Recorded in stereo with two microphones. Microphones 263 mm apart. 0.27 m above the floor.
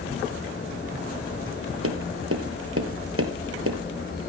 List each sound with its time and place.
1.8 s tapping: 65° right (ahead or behind), 1.8 m